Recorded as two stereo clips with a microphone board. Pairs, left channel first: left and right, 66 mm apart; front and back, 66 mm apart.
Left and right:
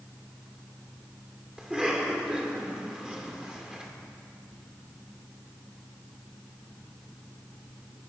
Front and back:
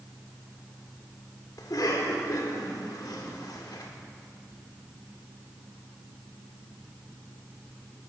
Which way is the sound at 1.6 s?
15° right.